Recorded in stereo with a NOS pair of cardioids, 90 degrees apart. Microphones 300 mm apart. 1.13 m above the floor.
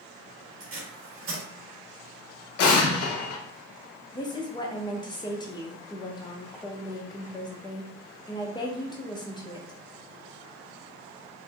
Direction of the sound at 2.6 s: 60° left.